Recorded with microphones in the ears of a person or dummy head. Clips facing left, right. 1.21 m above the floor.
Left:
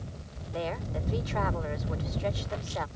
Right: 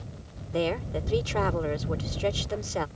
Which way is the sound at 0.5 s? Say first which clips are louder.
Right 6 dB; 45° right (ahead or behind).